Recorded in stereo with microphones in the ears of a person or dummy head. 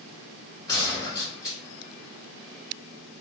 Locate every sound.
0.7 s a gunshot: 25° left (ahead or behind), 2.5 m